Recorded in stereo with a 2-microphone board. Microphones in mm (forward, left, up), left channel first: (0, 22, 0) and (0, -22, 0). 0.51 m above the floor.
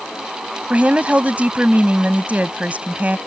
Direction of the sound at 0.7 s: 35° right (ahead or behind).